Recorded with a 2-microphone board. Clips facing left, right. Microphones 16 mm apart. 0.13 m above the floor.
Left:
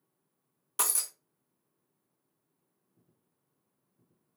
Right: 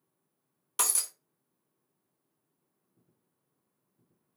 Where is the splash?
I don't hear a splash.